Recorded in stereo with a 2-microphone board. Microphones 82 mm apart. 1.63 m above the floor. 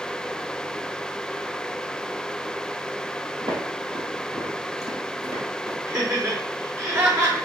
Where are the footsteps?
55° right (ahead or behind), 2.5 m; by 5.8 s 40° right (ahead or behind), 2.5 m.